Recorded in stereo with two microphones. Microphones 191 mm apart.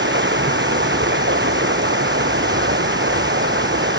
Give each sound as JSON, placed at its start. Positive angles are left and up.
{"t": 0.0, "sound": "running water", "side_deg": -80}